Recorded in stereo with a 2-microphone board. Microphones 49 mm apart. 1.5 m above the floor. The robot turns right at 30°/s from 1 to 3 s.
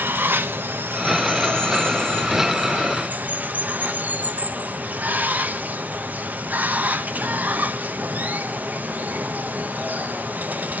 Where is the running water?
110° right, 0.8 m; by 10.8 s 50° right, 0.8 m.